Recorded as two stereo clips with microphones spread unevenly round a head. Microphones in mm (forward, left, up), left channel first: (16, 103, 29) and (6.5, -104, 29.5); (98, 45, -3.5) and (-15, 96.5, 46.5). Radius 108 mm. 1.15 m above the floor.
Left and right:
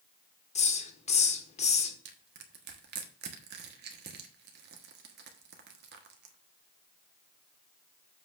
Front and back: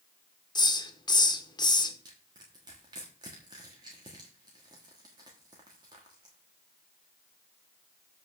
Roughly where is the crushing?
Behind right.